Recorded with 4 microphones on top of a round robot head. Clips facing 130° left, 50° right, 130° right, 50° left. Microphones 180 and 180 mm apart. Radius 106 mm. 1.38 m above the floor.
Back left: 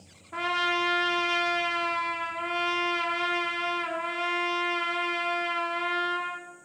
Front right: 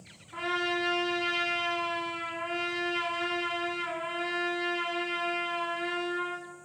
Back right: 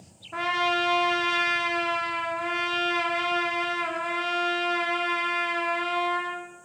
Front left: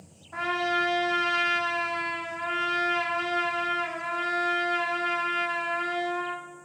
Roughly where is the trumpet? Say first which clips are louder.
Back left 1 dB, back right 1 dB; behind.